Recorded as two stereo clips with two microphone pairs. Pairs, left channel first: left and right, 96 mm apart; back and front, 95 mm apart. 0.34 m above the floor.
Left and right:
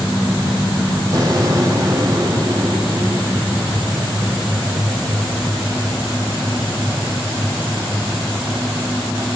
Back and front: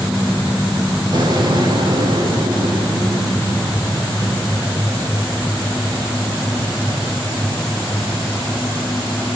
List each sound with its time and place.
1.1 s an explosion: 40° right, 6 m